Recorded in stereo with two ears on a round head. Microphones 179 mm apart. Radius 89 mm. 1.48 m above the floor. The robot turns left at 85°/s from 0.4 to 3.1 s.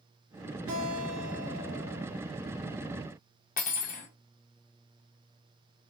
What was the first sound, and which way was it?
A guitar, 75° right.